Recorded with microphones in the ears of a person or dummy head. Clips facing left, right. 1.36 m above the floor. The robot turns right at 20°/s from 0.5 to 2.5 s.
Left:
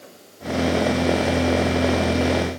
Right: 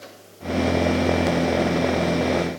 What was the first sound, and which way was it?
Only background noise.